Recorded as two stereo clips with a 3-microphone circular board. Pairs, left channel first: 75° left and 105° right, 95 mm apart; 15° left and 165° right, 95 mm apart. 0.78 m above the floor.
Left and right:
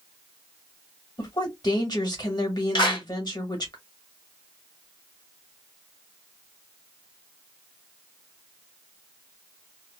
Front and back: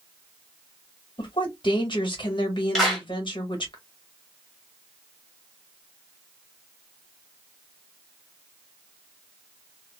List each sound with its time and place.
1.2 s a woman speaking: 40° left, 1.3 m
2.8 s a clap: 100° left, 1.3 m